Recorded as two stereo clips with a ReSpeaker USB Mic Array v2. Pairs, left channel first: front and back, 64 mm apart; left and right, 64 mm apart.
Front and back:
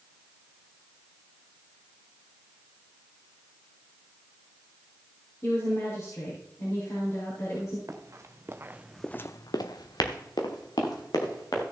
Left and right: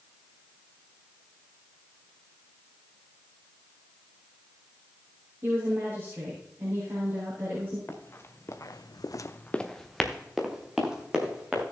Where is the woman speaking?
40° right, 4.5 m.